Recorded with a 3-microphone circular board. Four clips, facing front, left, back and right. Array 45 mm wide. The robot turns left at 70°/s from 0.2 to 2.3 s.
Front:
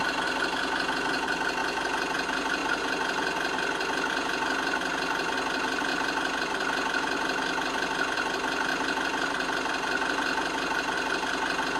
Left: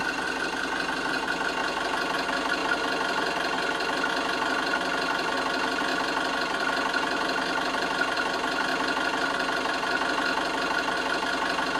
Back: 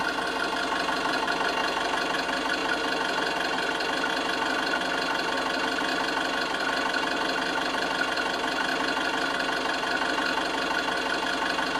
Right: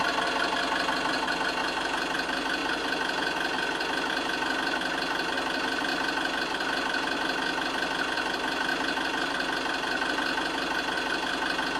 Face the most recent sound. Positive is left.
turn(degrees=120)